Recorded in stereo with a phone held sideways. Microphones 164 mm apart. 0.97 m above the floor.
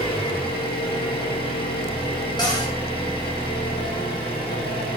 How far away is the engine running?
About 1.6 m.